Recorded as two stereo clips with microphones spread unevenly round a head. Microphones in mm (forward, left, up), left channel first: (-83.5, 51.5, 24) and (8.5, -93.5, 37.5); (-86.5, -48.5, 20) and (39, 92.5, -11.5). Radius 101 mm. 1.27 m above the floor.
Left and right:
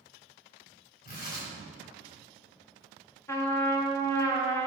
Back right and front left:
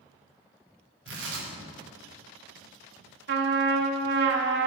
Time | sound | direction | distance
1.1 | tearing paper | 70° left | 2.5 m
3.3 | a trumpet | 50° left | 0.8 m